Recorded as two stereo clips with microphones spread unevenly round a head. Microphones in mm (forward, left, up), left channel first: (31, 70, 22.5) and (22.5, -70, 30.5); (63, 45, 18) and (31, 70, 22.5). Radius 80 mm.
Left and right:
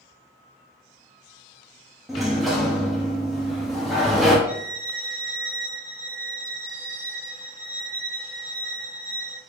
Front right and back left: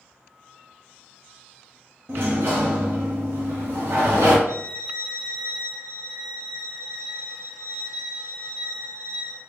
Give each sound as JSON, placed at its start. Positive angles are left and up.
{"t": 2.1, "sound": "a sliding door", "azimuth_deg": 175, "distance_m": 0.7}
{"t": 4.5, "sound": "a violin", "azimuth_deg": -170, "distance_m": 0.7}